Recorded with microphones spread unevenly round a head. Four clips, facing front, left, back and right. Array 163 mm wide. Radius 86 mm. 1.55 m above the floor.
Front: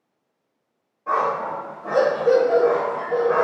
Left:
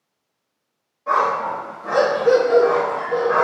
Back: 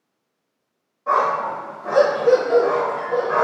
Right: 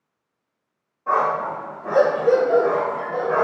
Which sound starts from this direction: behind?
A dog barking, at 1.1 s.